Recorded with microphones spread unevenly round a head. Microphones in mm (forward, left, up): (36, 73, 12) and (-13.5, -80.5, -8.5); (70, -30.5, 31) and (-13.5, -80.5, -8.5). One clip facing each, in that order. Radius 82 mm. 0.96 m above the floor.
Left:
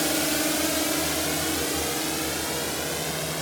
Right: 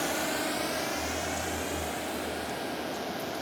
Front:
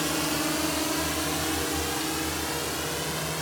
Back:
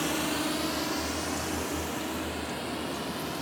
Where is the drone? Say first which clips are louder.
Left 5 dB, front 2 dB; 115° left; by 3.4 s 75° left.